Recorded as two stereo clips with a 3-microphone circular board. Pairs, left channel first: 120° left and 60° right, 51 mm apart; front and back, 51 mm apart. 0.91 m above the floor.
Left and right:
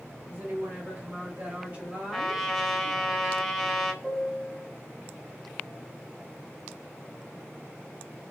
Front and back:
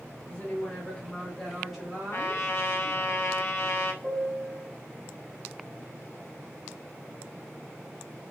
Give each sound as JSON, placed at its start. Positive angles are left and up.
{"t": 0.3, "sound": "a woman speaking", "azimuth_deg": -35, "distance_m": 1.1}
{"t": 2.1, "sound": "a trumpet", "azimuth_deg": 30, "distance_m": 0.6}
{"t": 4.0, "sound": "a piano", "azimuth_deg": -170, "distance_m": 1.4}